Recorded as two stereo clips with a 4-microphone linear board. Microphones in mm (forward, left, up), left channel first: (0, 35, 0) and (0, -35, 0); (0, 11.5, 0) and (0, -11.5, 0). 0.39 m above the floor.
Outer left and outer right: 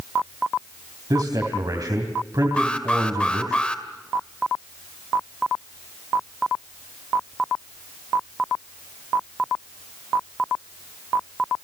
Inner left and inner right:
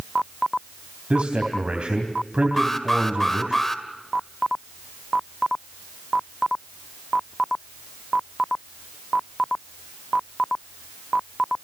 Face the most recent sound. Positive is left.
turn(degrees=15)  # may be behind; listen again after turning